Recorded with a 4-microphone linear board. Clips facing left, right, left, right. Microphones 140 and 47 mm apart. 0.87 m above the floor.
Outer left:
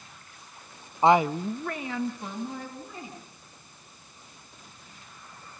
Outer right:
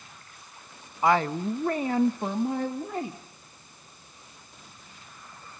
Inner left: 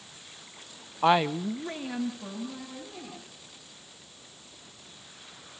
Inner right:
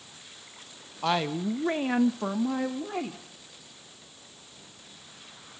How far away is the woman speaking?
About 0.6 m.